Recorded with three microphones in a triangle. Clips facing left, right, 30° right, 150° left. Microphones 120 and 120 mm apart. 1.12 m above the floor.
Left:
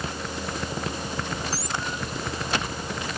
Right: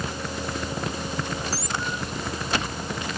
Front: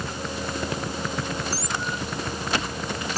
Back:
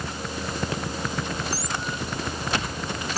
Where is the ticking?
No ticking in this recording.